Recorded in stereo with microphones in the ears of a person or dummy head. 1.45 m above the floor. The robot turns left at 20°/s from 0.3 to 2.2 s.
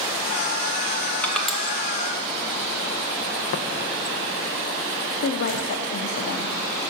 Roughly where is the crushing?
Centre.